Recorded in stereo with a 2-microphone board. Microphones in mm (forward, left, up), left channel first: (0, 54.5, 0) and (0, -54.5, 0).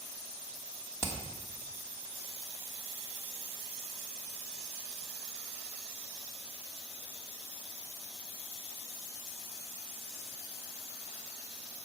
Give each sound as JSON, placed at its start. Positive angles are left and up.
{"t": 1.0, "sound": "hammering", "side_deg": 25, "distance_m": 1.3}